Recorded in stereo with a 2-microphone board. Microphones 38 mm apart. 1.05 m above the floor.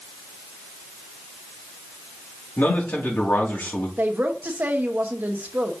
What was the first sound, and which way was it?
A man speaking, 55° left (ahead or behind).